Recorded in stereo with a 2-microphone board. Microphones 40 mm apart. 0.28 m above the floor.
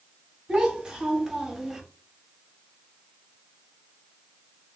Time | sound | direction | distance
0.5 | a child speaking | 15° right (ahead or behind) | 1.4 m